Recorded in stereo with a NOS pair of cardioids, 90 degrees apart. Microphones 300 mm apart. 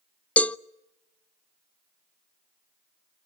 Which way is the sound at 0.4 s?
5° left.